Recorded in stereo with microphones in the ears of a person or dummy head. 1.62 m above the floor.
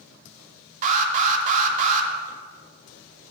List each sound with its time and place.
0.8 s an alarm: 40° right (ahead or behind), 1.8 m